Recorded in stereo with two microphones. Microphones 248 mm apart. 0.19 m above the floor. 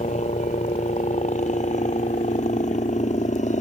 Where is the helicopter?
30° left (ahead or behind).